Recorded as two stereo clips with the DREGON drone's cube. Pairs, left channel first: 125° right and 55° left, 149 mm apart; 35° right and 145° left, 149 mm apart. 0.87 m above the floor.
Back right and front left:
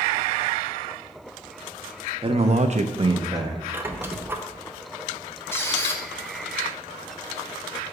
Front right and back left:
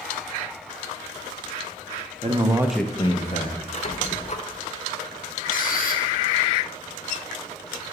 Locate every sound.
2.2 s a man speaking: 105° left, 0.8 m; by 3.6 s 20° right, 0.9 m
3.7 s a squeak: 15° right, 0.6 m
5.5 s a squeak: 50° right, 0.7 m